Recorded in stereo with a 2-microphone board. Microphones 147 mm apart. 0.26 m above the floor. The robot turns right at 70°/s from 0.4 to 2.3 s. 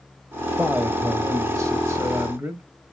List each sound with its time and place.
0.6 s a man speaking: 5° right (ahead or behind), 0.9 m; by 2.6 s 15° right (ahead or behind), 0.9 m